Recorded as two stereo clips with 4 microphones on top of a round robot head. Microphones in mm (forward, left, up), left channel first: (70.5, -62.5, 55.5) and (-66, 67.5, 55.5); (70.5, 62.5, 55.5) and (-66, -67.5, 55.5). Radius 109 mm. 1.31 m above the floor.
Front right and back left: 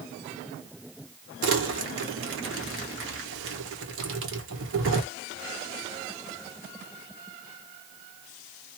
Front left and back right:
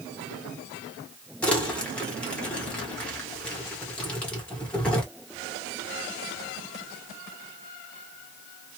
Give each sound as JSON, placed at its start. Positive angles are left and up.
{"t": 1.4, "sound": "crumpling", "azimuth_deg": 130, "distance_m": 1.4}